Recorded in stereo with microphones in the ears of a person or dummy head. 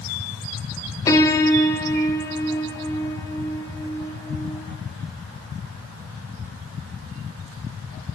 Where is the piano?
15° left (ahead or behind), 1.1 m.